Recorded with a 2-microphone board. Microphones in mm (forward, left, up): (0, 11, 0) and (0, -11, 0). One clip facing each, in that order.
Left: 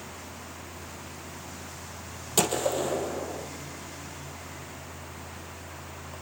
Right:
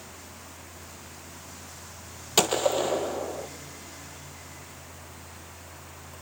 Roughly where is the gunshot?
Right.